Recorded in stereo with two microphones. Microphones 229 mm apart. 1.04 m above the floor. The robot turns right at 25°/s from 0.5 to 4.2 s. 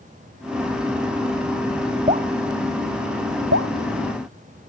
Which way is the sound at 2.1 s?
30° right (ahead or behind).